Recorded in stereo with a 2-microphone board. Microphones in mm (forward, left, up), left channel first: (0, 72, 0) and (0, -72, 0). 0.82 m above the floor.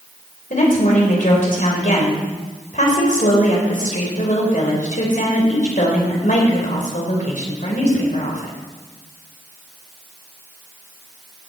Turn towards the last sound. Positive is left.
turn(degrees=65)  # may be behind; listen again after turning